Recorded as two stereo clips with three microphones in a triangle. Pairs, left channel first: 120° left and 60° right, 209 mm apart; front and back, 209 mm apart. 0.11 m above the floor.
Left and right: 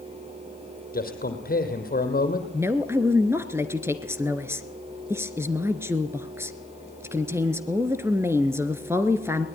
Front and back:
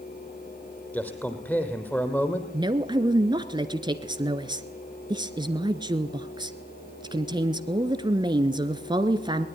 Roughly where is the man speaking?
Left.